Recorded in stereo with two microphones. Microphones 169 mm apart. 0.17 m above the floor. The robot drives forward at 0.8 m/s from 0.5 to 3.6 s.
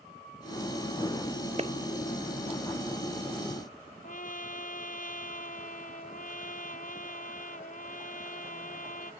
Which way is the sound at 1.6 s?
40° right (ahead or behind).